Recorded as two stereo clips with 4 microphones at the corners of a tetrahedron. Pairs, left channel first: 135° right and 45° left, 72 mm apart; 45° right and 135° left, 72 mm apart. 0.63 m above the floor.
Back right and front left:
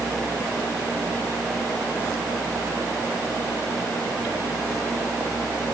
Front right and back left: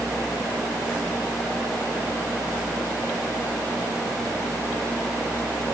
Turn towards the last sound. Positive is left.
No sound to turn to.